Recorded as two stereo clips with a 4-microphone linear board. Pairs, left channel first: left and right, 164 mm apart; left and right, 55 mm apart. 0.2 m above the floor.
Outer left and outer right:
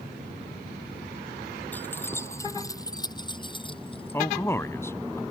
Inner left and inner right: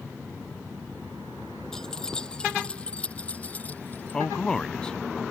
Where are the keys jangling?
10° left (ahead or behind); by 4.2 s 35° left (ahead or behind).